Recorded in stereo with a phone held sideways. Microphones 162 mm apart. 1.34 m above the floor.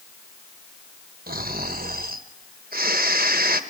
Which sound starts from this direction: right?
Snoring, at 1.3 s.